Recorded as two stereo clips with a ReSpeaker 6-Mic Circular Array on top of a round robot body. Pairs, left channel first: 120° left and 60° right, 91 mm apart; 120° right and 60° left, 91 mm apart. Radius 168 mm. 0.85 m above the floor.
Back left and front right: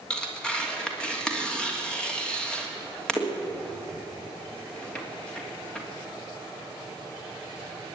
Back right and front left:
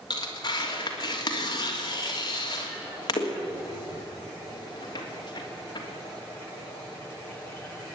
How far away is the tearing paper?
About 3 m.